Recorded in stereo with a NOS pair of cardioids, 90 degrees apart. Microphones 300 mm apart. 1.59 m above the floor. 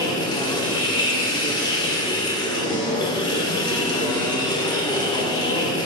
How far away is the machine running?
About 1.0 m.